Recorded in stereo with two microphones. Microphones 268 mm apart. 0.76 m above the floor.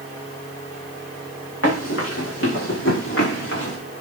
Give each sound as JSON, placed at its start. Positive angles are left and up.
{"t": 1.6, "sound": "running footsteps", "side_deg": 55, "distance_m": 5.5}